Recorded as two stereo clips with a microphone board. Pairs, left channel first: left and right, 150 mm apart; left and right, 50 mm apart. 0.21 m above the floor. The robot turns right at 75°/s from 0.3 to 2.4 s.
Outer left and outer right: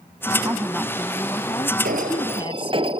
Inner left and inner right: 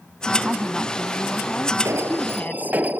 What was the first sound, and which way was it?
A woman speaking, 35° right.